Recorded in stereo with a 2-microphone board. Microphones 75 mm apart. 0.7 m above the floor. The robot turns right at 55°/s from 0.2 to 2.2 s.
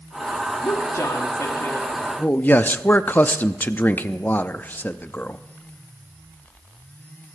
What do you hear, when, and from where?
0.6 s a woman speaking: 75° left, 1.6 m; by 2.1 s 155° left, 1.6 m
2.2 s a man speaking: 25° left (ahead or behind), 0.6 m